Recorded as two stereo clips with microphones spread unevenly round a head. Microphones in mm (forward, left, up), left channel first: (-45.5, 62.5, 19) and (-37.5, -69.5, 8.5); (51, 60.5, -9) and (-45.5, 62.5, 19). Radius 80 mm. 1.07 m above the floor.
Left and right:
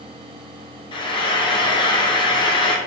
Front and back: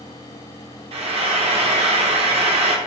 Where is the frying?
150° left, 1.0 m.